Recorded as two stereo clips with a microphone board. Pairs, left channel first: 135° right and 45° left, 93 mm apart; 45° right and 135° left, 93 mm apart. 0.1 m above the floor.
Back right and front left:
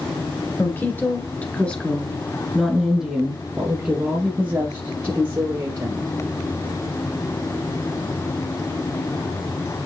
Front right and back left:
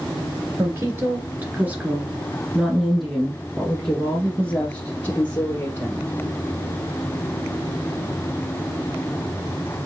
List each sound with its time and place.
0.6 s a woman speaking: straight behind, 1.9 m; by 6.1 s 10° left, 2.5 m